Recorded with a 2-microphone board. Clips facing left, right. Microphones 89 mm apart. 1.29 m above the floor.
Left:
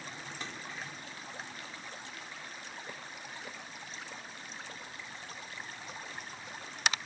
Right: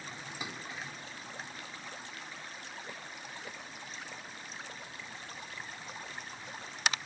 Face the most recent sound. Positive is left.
turn(degrees=-10)  # may be behind; listen again after turning